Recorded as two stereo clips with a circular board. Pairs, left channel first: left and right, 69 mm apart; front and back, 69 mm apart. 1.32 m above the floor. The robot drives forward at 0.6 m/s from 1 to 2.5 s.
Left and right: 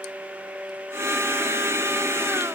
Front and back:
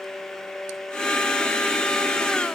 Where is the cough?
No cough in this recording.